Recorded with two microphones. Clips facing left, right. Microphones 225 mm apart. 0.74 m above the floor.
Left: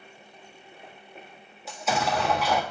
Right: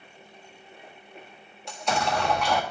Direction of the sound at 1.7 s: 5° left (ahead or behind).